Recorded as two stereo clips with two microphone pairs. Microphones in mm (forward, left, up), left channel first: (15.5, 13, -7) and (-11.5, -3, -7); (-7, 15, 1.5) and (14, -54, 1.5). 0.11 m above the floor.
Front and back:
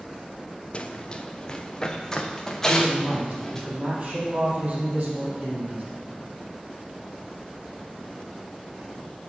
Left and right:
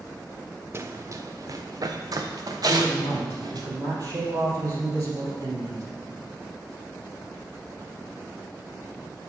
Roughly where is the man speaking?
Right.